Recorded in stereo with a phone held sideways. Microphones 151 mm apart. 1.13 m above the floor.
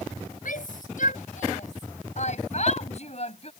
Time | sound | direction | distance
0.5 | a shout | 70° left (ahead or behind) | ?